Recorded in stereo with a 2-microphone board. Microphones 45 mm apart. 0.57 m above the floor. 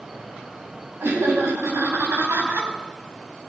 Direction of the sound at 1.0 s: 70° right (ahead or behind).